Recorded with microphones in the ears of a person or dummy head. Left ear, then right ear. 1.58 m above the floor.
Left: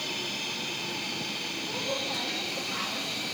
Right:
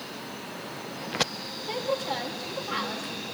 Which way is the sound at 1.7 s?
70° right (ahead or behind).